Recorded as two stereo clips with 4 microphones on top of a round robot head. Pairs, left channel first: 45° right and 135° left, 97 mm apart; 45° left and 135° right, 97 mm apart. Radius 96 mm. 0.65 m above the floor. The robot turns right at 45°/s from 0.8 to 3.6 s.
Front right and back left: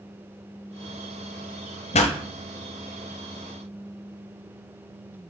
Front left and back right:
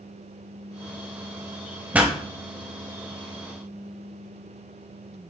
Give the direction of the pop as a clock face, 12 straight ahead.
2 o'clock.